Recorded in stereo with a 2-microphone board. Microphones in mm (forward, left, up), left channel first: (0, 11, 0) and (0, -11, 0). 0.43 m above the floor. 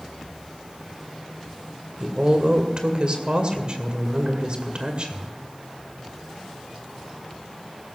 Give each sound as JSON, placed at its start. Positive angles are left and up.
{"t": 2.0, "sound": "a woman speaking", "side_deg": -45, "distance_m": 2.0}